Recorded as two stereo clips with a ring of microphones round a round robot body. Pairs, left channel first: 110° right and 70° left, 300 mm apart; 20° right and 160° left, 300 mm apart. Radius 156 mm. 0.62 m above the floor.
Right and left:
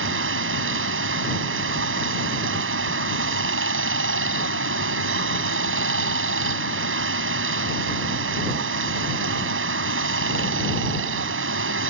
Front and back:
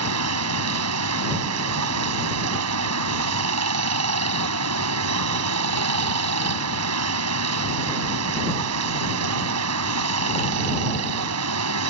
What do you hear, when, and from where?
0.0 s running water: 120° left